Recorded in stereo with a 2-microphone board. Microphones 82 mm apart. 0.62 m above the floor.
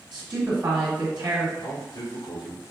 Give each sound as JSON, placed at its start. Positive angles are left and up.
{"t": 0.1, "sound": "a woman speaking", "side_deg": -50, "distance_m": 1.2}
{"t": 1.6, "sound": "a man speaking", "side_deg": 65, "distance_m": 1.2}